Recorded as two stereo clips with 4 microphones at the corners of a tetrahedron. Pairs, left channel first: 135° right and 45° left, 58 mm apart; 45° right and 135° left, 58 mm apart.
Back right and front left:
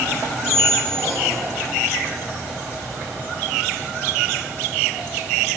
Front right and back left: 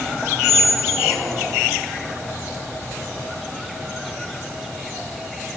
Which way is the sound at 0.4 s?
95° left.